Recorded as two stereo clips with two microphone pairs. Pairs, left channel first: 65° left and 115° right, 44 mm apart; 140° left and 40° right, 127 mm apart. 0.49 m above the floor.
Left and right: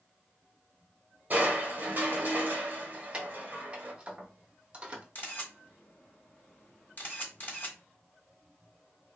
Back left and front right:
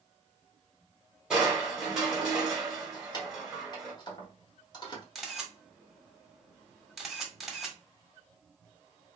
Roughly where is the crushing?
Behind right.